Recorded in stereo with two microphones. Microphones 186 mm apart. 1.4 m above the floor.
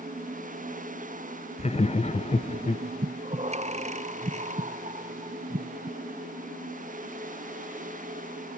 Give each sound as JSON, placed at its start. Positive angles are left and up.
{"t": 1.6, "sound": "laughter", "side_deg": 35, "distance_m": 0.9}
{"t": 3.0, "sound": "breathing", "side_deg": -40, "distance_m": 0.5}